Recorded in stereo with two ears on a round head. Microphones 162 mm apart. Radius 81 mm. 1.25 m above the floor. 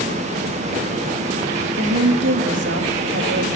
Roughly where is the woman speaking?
Right.